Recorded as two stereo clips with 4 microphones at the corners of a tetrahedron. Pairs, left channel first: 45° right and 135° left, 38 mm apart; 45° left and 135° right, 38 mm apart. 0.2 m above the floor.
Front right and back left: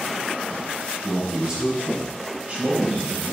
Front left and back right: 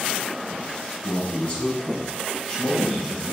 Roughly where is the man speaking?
Left.